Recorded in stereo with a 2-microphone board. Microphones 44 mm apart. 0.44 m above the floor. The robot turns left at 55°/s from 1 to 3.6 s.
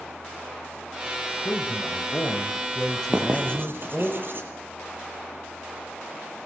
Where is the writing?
25° right (ahead or behind), 7 m; by 4.5 s 50° right (ahead or behind), 7 m.